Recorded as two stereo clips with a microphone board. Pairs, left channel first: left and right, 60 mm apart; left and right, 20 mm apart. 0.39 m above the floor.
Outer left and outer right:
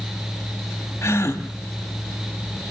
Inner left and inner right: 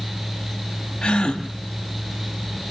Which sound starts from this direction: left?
A gasp, at 1.0 s.